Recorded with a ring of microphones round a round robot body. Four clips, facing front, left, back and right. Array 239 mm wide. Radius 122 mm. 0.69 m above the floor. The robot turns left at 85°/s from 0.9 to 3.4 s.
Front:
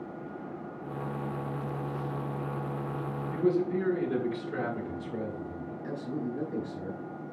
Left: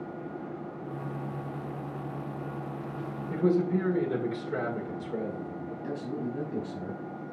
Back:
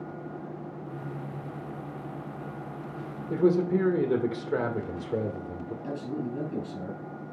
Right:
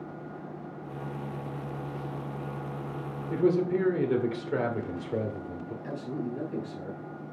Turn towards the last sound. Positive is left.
turn(degrees=145)